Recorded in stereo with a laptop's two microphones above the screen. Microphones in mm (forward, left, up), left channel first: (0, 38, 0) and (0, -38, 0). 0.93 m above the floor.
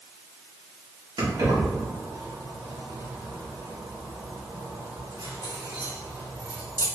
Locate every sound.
1.2 s keys jangling: 80° right, 1.7 m